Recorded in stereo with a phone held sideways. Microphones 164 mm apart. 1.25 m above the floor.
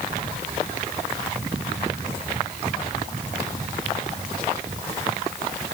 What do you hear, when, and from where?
Only background noise.